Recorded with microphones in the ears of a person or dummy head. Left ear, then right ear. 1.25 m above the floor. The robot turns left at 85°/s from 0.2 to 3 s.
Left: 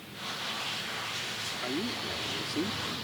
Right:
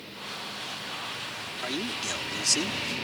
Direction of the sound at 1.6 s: 35° right.